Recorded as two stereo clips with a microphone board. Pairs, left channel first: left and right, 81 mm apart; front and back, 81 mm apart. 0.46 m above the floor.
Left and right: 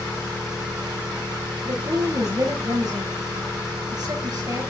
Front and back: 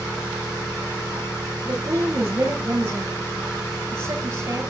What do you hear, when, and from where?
0.0 s an engine running: 70° right, 8.5 m
1.6 s a woman speaking: 120° right, 7 m